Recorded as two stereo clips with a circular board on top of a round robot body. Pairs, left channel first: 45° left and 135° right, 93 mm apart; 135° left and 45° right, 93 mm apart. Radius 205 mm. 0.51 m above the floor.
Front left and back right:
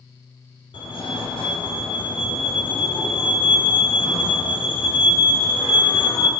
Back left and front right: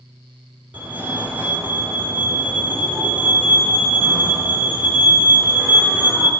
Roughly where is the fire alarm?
Ahead left.